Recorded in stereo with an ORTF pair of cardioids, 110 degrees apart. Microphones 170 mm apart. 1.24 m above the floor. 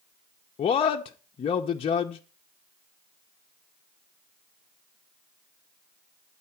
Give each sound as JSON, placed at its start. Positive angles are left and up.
{"t": 0.6, "sound": "a man speaking", "azimuth_deg": 35, "distance_m": 0.6}